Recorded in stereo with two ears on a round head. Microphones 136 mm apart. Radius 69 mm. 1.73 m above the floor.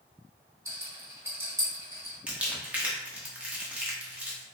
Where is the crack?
No crack in this recording.